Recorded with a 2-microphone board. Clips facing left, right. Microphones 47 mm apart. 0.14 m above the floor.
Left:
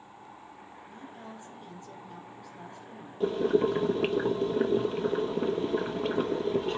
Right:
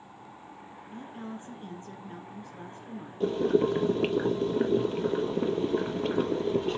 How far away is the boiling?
About 0.7 m.